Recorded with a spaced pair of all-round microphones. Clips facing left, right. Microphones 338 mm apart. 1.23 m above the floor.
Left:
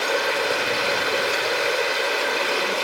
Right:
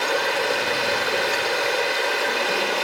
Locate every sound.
0.0 s running water: 10° left (ahead or behind), 1.7 m